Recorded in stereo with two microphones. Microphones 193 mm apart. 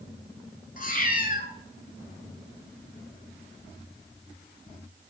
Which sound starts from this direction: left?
A cat meowing, at 0.8 s.